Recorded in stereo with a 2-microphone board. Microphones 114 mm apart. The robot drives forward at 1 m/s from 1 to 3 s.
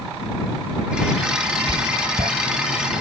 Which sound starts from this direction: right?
Writing, at 1.7 s.